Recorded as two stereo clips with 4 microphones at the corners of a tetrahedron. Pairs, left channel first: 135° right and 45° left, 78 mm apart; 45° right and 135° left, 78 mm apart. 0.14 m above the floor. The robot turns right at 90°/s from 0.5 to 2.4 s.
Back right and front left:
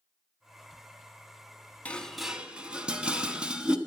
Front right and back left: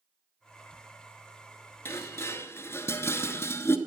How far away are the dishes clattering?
About 0.8 m.